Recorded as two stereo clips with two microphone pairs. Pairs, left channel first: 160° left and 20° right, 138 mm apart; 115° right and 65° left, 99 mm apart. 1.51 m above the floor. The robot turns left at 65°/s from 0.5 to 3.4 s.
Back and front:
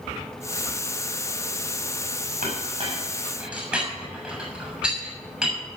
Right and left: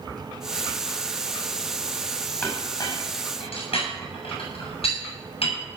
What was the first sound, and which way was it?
A clink, 40° right.